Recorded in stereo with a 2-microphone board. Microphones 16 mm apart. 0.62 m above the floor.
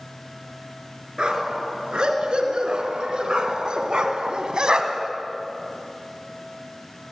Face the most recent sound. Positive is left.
turn(degrees=-60)  # may be behind; listen again after turning